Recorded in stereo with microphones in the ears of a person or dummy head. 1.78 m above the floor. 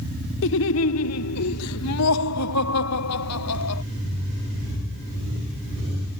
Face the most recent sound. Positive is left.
turn(degrees=75)  # may be behind; listen again after turning